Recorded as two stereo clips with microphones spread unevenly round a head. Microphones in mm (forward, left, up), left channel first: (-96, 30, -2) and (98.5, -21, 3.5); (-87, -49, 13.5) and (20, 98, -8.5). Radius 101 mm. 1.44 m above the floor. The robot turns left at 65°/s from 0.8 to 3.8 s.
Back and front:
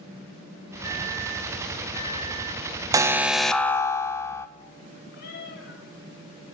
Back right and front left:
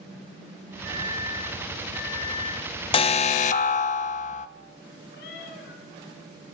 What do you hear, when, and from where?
0.8 s a microwave: 100° left, 8 m; by 3.7 s 85° right, 8 m
2.9 s an alarm: 75° right, 0.5 m; by 4.5 s 135° right, 0.5 m
5.1 s a cat meowing: 150° right, 5.5 m